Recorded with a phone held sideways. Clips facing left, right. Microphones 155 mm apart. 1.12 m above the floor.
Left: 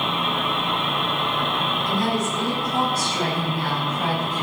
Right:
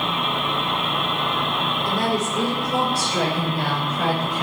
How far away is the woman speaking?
About 5 m.